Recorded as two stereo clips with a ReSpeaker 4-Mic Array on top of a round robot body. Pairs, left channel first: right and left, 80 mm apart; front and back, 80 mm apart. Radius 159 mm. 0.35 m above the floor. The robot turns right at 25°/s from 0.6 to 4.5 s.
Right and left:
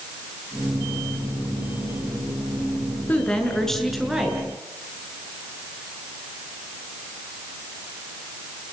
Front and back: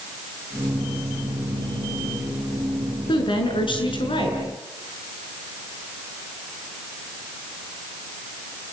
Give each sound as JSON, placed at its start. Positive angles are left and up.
{"t": 3.1, "sound": "a woman speaking", "azimuth_deg": -20, "distance_m": 6.5}